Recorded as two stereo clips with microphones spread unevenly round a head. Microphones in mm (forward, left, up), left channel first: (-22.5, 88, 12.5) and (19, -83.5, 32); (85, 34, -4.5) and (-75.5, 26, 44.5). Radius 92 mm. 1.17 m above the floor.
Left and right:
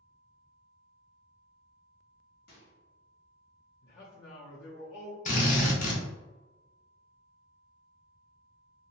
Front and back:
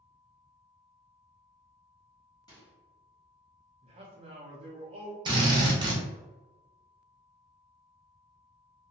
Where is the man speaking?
130° left, 0.6 m.